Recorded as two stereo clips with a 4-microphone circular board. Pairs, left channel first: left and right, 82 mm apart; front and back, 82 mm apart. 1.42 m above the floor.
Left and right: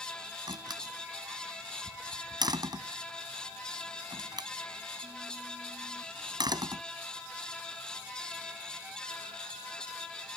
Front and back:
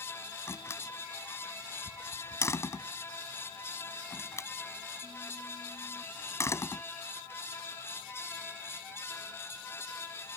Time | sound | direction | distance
0.5 | a door slam | 55° right | ?